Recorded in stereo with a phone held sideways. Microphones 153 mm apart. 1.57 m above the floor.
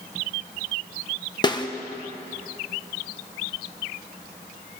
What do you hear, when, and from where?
1.4 s a snare drum: 25° left (ahead or behind), 1.2 m